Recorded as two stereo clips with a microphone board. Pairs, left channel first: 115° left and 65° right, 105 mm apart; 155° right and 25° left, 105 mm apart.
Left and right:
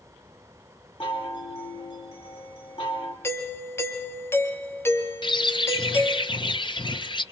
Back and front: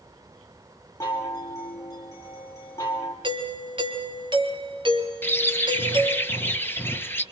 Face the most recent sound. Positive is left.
turn(degrees=140)